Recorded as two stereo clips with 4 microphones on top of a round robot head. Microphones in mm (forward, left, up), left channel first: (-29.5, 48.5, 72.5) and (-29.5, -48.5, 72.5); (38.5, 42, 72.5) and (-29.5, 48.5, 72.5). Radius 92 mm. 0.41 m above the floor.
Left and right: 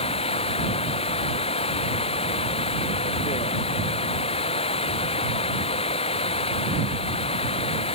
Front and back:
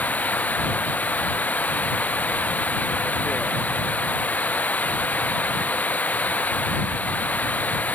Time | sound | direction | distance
0.0 | running water | 60° left | ?